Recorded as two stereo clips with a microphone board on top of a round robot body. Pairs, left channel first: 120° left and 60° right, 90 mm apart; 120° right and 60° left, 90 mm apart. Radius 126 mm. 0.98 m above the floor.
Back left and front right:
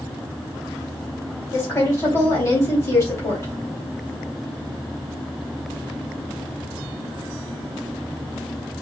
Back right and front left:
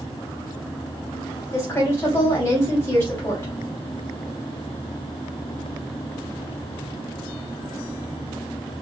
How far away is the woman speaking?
About 2 m.